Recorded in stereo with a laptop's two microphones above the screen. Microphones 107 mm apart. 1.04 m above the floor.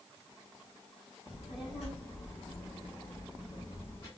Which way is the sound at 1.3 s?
55° left (ahead or behind).